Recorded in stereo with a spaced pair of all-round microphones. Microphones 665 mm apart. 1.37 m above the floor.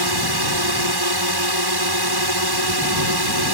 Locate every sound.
0.0 s a drone: 35° right (ahead or behind)